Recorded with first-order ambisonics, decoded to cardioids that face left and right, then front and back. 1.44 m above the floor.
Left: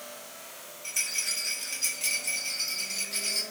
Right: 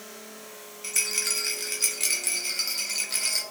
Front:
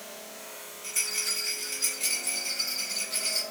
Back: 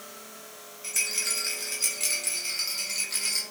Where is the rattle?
105° right, 1.0 m.